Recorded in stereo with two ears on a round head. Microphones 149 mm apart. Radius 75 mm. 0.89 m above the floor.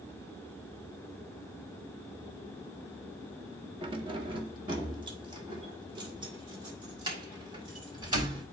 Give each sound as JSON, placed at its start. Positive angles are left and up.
{"t": 3.8, "sound": "keys jangling", "side_deg": -30, "distance_m": 1.2}